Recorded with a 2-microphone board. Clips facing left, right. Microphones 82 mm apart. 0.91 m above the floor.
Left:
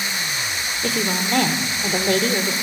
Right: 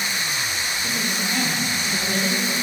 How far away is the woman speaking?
About 2.5 m.